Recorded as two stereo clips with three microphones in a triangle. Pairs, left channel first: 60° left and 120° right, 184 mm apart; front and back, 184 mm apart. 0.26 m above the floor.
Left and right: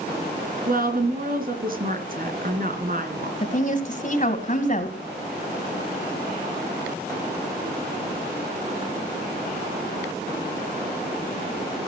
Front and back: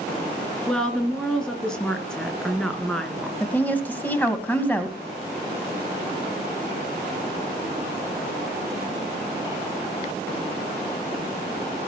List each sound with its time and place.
0.7 s a woman speaking: 85° right, 2.5 m
3.4 s a woman speaking: 80° left, 1.9 m